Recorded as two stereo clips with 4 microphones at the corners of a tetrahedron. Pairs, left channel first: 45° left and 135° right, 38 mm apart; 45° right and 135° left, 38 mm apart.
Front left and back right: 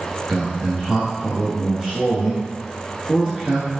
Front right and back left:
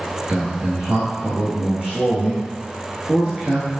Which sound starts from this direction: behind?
A man speaking, at 0.3 s.